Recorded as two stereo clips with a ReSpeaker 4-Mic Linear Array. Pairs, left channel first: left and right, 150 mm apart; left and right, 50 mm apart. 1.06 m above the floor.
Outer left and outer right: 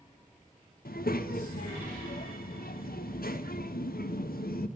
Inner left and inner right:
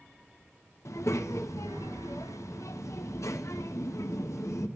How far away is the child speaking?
About 0.6 m.